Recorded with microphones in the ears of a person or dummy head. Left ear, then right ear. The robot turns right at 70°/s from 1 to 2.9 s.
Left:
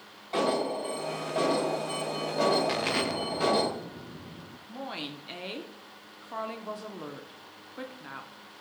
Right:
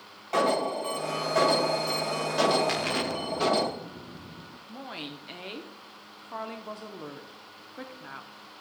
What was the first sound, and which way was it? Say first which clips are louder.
An alarm: right 3 dB; 150° right.